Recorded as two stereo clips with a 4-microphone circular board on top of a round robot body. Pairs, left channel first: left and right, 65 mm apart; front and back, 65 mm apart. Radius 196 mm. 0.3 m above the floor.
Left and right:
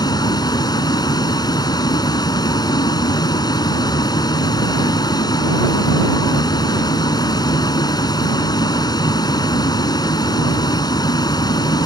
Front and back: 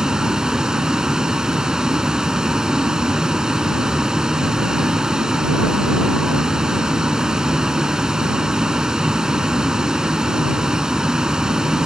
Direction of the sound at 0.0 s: 100° left.